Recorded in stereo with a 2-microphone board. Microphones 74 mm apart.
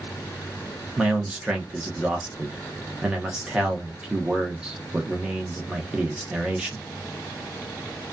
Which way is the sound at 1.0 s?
10° right (ahead or behind).